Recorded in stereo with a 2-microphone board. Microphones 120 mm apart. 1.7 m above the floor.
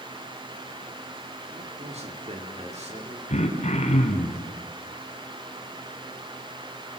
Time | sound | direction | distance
1.5 | a man speaking | 55° right (ahead or behind) | 4 m
3.3 | throat clearing | 65° left (ahead or behind) | 3 m